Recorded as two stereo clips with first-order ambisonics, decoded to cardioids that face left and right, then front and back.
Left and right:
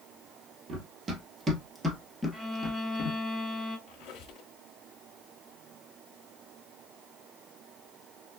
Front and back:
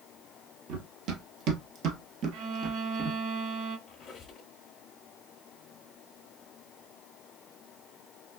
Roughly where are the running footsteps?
Behind right.